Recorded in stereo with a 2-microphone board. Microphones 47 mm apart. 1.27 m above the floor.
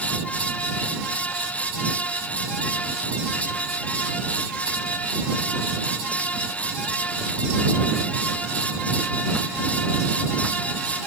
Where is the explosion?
No explosion in this recording.